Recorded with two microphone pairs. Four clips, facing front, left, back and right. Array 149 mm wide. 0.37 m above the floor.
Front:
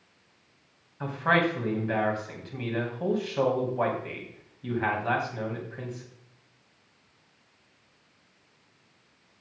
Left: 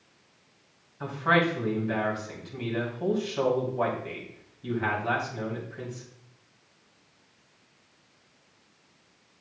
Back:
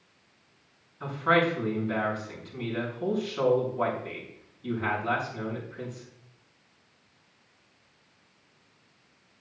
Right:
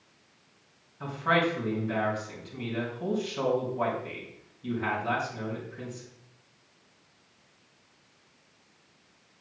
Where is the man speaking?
20° left, 3 m.